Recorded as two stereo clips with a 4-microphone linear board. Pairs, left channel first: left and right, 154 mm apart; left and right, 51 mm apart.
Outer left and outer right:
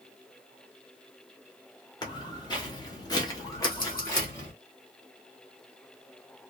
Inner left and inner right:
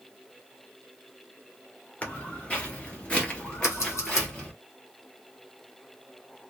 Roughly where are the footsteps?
Left.